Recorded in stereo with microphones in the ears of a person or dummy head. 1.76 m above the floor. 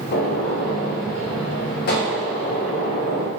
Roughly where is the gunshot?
Left.